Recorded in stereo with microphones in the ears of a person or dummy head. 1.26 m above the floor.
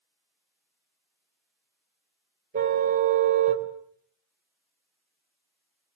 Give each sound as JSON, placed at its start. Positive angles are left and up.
{"t": 2.5, "sound": "a car horn", "side_deg": -40, "distance_m": 3.5}